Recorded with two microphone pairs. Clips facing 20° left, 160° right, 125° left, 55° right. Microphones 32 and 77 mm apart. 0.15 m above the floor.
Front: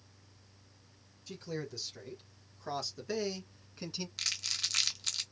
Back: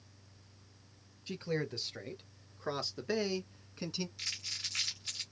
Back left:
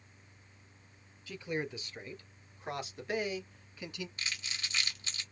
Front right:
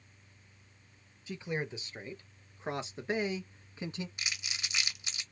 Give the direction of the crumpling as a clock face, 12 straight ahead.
11 o'clock.